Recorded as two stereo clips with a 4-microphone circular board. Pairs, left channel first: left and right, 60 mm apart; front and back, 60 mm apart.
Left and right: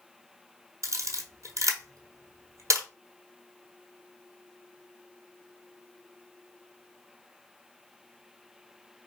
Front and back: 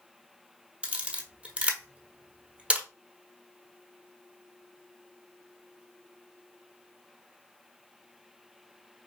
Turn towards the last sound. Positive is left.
turn(degrees=-110)